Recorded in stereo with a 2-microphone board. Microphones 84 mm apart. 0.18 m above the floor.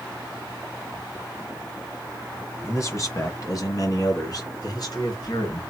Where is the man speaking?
35° left (ahead or behind), 1.9 m; by 5.6 s 55° left (ahead or behind), 3 m.